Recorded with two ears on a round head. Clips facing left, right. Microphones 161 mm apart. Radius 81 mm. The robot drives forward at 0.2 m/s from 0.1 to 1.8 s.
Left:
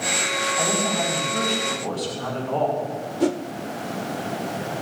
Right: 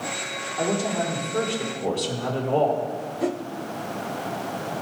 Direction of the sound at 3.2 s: 50° left (ahead or behind).